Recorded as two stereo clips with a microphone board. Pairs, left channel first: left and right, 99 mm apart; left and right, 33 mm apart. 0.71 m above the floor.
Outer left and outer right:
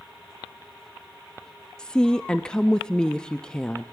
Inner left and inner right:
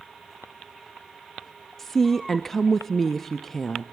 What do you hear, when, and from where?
1.8 s a woman speaking: 10° left (ahead or behind), 0.6 m